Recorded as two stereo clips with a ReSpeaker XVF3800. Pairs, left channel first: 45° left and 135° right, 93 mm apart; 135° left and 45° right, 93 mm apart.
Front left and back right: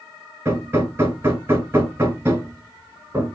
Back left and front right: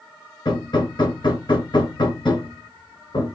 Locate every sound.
0.5 s hammering: 160° left, 1.5 m